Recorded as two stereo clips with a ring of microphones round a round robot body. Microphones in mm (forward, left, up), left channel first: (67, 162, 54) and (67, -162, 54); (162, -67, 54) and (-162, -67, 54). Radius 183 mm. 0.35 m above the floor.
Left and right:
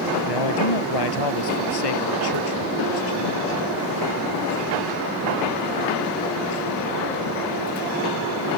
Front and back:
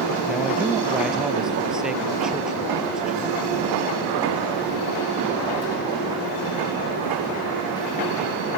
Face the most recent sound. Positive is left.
turn(degrees=90)